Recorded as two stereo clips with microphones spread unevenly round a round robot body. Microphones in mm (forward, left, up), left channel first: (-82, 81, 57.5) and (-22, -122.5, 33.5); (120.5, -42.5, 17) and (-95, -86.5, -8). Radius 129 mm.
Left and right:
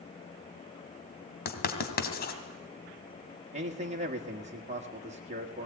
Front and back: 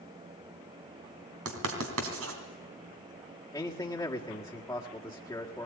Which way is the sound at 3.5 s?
65° right.